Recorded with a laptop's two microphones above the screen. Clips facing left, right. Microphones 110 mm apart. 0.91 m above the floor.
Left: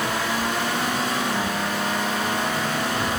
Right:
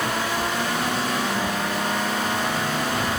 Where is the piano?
I don't hear a piano.